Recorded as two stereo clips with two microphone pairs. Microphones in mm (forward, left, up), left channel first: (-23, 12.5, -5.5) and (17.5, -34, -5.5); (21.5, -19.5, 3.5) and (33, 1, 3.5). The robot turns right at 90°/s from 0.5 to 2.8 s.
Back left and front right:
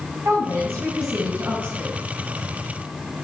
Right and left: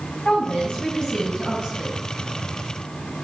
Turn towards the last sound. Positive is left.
turn(degrees=115)